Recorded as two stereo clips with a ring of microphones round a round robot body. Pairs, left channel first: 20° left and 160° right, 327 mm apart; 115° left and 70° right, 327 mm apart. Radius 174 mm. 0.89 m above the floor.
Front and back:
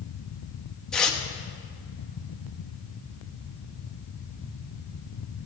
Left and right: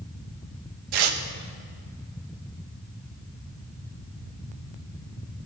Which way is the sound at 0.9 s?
65° right.